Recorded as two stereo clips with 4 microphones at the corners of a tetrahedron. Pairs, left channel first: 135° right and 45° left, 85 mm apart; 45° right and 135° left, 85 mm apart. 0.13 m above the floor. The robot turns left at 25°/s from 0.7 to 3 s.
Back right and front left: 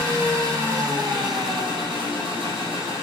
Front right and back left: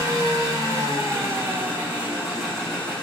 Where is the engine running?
90° left, 5 m; by 3.0 s 35° left, 5 m.